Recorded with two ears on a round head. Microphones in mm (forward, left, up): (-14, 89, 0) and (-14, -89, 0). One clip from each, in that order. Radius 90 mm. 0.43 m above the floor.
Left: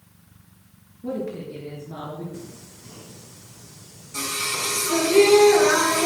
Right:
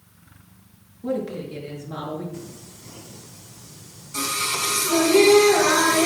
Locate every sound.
1.0 s a woman speaking: 30° right (ahead or behind), 7 m
2.3 s singing: 5° right (ahead or behind), 4 m